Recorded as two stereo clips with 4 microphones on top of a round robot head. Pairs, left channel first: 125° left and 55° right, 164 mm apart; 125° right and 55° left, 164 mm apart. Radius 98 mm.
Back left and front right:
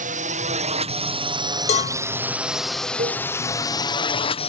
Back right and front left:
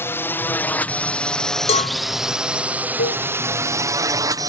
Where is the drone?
55° right; by 4.5 s 105° left.